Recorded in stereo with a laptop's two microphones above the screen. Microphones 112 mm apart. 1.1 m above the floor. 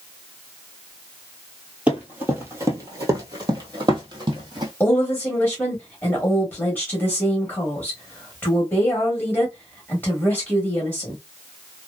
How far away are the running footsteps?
About 1.2 m.